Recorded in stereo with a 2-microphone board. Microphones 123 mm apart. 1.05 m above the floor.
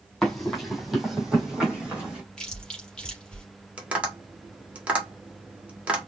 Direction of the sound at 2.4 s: 5° left (ahead or behind).